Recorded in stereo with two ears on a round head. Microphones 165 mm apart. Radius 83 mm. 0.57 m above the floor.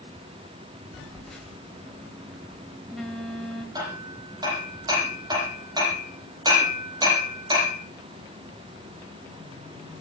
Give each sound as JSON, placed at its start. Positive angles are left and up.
{"t": 0.9, "sound": "a phone buzzing", "side_deg": 0, "distance_m": 3.5}
{"t": 3.8, "sound": "hammering", "side_deg": -25, "distance_m": 9.0}